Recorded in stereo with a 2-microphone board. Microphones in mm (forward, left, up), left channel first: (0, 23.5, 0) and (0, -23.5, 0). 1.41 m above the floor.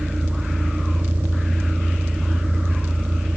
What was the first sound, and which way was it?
A vehicle, 40° right (ahead or behind).